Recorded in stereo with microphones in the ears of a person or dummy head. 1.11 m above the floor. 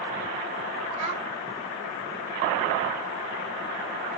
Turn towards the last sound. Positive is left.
turn(degrees=-40)  # may be behind; listen again after turning